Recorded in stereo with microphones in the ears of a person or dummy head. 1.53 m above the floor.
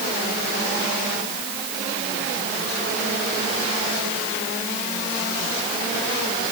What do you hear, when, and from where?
Only background noise.